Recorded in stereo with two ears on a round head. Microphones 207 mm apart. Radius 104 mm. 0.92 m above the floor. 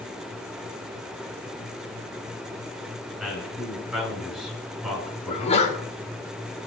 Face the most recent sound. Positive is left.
turn(degrees=30)  # may be behind; listen again after turning